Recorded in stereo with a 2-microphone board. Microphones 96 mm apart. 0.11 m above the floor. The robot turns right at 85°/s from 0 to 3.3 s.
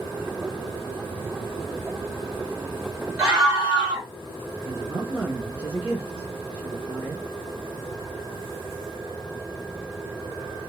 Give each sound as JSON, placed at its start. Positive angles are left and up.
{"t": 3.2, "sound": "a scream", "side_deg": -15, "distance_m": 1.6}
{"t": 4.7, "sound": "a woman speaking", "side_deg": -15, "distance_m": 1.1}